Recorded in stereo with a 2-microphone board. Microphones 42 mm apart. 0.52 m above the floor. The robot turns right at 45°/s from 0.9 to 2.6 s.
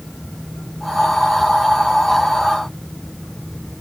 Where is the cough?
No cough in this recording.